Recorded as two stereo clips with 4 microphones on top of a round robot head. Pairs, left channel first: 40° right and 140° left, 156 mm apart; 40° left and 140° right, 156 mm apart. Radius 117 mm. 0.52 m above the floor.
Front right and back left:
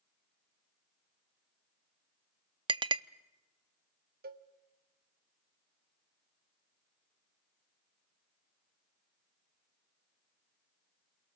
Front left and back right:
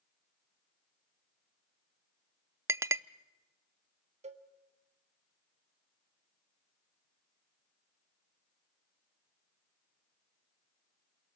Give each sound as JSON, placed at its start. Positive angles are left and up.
{"t": 2.7, "sound": "a clink", "azimuth_deg": 160, "distance_m": 0.5}
{"t": 4.2, "sound": "a cowbell", "azimuth_deg": 170, "distance_m": 1.1}